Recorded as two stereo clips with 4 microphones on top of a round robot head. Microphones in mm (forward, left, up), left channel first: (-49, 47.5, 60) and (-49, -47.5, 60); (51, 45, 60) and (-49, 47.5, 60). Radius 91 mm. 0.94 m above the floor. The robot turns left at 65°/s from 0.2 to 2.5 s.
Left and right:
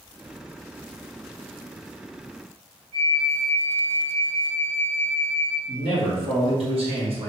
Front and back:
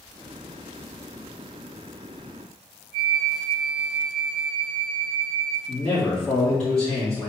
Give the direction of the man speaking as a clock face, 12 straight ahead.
3 o'clock.